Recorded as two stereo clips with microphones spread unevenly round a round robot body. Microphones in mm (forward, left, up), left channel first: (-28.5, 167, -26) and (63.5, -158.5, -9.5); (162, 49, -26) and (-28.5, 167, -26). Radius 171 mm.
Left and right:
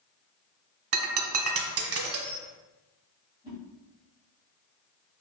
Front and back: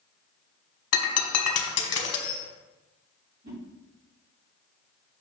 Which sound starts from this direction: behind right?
A whoosh, at 3.4 s.